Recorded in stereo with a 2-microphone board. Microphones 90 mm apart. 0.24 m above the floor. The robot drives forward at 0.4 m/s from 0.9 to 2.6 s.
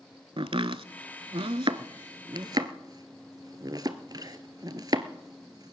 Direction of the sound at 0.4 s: 80° right.